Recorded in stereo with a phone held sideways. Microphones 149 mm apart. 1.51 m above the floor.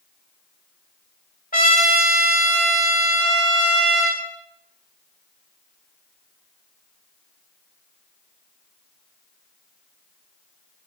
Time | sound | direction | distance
1.5 | a trumpet | 65° left (ahead or behind) | 4.5 m